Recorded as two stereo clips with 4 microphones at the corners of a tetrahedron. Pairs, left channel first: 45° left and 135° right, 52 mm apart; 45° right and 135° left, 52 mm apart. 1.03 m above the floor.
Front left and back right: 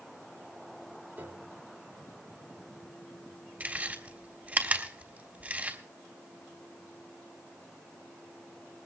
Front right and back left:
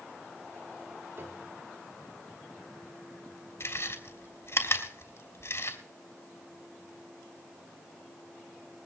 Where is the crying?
No crying in this recording.